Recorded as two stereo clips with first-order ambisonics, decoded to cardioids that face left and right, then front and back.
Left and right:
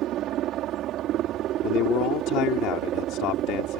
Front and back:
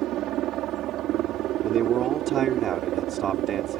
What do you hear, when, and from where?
0.0 s a helicopter: 135° right
1.6 s a man speaking: 120° left